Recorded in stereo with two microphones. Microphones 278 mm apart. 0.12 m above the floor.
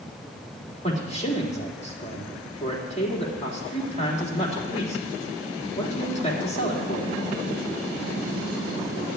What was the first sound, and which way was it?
A man speaking, 25° left (ahead or behind).